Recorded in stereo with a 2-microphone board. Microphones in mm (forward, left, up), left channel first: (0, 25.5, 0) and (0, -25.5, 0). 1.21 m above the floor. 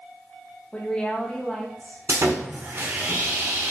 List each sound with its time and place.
0.7 s a woman speaking: 20° left (ahead or behind), 1.7 m; by 2.0 s 5° left (ahead or behind), 2.5 m
2.1 s sawing: 60° right (ahead or behind), 1.5 m